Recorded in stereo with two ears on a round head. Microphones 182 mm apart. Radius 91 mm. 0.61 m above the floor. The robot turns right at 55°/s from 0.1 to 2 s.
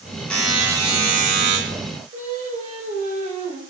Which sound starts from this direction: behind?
A buzzer, at 0.3 s.